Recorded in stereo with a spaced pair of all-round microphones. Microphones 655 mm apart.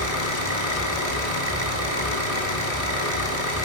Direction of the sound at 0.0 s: 60° right (ahead or behind).